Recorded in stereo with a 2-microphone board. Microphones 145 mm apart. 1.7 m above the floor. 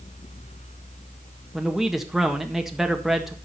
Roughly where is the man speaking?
Centre.